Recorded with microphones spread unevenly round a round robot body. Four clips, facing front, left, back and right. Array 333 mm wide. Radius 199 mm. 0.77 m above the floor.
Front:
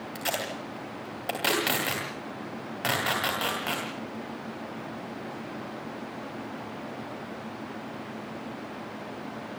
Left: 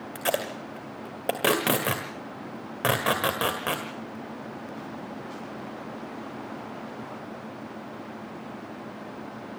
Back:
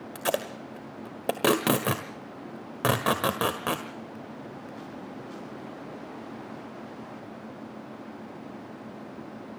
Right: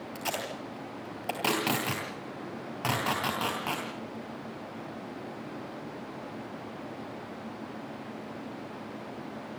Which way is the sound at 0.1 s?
170° left.